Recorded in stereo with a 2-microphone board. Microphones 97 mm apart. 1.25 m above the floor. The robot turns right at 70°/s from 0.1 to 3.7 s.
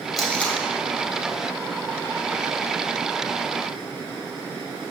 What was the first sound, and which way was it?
Tape being pulled, centre (ahead or behind).